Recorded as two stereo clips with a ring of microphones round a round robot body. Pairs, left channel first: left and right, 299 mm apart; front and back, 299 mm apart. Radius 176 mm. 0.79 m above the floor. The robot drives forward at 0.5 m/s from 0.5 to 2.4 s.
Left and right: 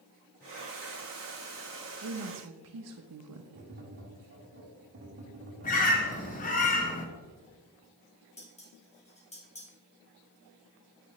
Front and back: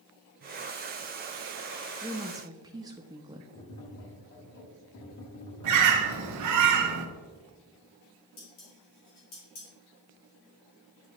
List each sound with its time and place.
2.0 s a woman speaking: 90° right, 0.8 m; by 3.4 s 105° right, 0.8 m
3.5 s tapping: 40° right, 1.9 m
5.6 s a bird: 155° left, 1.0 m
8.4 s dishes clattering: 20° left, 3.5 m